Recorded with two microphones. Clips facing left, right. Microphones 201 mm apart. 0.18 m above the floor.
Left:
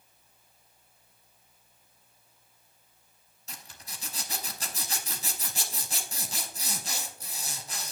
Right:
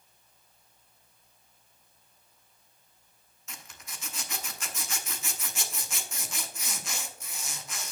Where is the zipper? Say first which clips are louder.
Even; 35° left (ahead or behind), 0.8 m.